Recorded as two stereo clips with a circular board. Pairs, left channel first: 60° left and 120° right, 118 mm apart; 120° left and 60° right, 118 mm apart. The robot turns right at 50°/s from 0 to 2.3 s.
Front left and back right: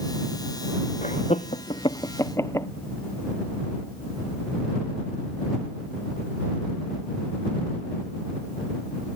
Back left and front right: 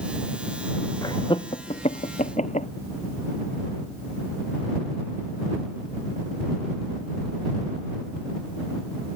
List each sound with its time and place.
1.0 s laughter: 60° left; by 2.7 s 125° left